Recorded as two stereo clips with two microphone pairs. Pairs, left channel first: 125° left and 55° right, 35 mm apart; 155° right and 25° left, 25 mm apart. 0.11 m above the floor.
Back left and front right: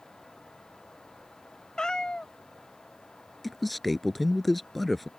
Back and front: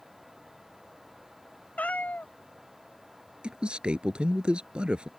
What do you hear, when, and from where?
1.8 s a cat meowing: 165° right
3.4 s a man speaking: 35° left